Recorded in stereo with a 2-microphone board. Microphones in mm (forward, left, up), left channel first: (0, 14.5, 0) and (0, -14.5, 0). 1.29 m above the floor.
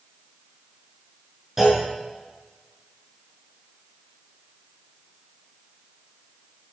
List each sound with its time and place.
1.6 s a clunk: 10° right (ahead or behind), 6 m